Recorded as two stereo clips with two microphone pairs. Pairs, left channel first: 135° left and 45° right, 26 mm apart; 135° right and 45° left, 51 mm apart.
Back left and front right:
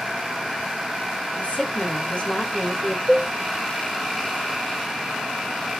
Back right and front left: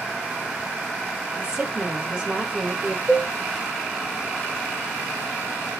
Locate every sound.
1.4 s a woman speaking: 120° left, 3.5 m
3.1 s a cowbell: 100° left, 4.5 m